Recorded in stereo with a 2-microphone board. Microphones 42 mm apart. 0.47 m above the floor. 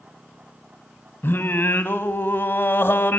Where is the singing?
60° left (ahead or behind), 1.3 m.